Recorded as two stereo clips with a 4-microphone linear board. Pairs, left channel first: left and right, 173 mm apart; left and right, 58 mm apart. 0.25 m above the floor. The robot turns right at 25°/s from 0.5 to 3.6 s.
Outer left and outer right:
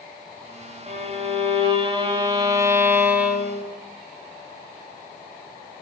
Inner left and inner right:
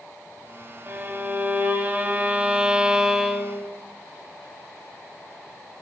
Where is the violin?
70° right, 0.7 m; by 3.6 s 5° right, 0.7 m.